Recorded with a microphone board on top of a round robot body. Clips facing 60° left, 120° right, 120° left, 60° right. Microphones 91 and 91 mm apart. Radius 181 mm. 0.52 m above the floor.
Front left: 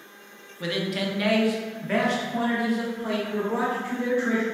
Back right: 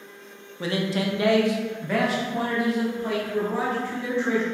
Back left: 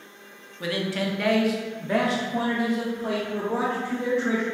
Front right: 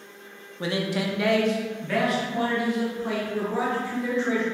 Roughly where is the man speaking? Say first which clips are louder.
Back right 2 dB, front right 1 dB; right.